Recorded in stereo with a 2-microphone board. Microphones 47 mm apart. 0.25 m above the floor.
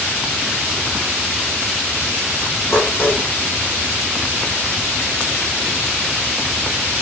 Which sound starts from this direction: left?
Dishes clattering, at 2.7 s.